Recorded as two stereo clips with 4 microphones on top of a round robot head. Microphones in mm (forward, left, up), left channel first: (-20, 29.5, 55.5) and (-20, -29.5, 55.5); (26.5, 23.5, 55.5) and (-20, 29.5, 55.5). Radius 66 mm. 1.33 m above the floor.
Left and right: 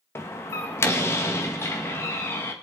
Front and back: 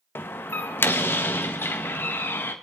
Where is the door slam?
35° left, 1.3 m.